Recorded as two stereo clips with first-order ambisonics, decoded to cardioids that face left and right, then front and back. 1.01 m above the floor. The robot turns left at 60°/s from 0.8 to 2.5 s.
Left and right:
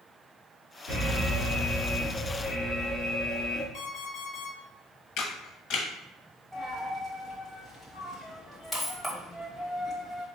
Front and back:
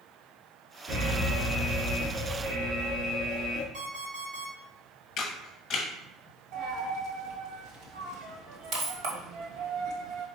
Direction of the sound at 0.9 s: 105° right.